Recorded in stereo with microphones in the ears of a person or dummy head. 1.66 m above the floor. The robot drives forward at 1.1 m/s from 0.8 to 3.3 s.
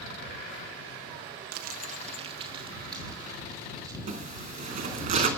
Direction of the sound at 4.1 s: 35° right (ahead or behind).